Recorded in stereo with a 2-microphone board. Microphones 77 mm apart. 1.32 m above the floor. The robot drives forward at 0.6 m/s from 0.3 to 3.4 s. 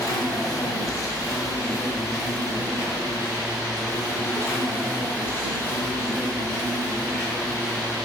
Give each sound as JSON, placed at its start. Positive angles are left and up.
{"t": 0.0, "sound": "an insect", "side_deg": 55, "distance_m": 1.7}